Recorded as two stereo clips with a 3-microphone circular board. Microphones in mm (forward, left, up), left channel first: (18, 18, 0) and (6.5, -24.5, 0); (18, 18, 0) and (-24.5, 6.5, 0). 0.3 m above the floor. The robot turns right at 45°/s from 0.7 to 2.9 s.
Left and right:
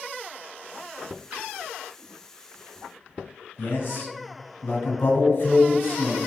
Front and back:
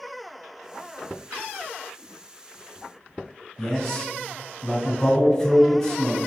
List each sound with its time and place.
1.3 s tapping: 165° right, 1.9 m; by 1.4 s 160° right, 1.9 m
3.6 s a man speaking: 85° left, 1.5 m